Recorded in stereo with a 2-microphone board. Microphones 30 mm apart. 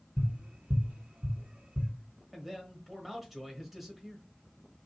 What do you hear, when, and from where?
0.2 s tapping: 40° right (ahead or behind), 1.0 m
2.3 s a man speaking: 5° right (ahead or behind), 1.0 m